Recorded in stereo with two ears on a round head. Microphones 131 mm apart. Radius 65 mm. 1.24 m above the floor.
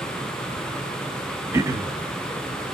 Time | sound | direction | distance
1.5 | throat clearing | 20° right (ahead or behind) | 0.6 m